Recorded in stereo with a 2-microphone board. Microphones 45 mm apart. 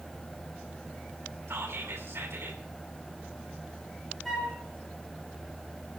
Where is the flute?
5° left (ahead or behind), 5 m.